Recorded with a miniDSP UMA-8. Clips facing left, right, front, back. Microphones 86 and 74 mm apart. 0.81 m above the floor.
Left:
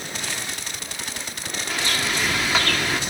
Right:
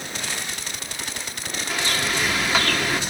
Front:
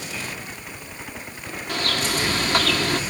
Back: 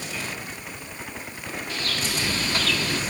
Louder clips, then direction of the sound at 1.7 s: Right 1 dB, front 6 dB; straight ahead.